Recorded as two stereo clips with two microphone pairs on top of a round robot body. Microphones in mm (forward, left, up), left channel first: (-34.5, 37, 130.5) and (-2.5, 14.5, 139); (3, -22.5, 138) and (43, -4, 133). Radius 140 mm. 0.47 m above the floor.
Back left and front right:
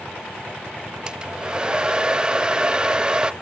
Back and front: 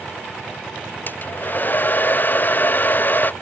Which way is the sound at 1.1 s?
105° right.